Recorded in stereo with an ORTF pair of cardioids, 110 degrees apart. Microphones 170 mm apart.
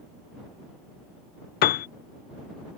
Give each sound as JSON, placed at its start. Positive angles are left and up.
{"t": 1.6, "sound": "a piano", "azimuth_deg": 65}